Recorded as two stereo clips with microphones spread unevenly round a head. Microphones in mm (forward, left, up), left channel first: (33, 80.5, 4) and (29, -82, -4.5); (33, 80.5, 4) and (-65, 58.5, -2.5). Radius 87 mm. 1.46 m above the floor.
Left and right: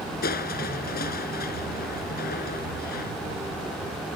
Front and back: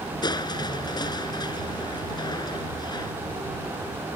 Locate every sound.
0.2 s crushing: 60° left